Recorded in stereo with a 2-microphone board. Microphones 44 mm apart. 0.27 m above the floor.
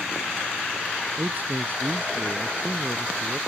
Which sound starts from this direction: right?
A man speaking, at 1.2 s.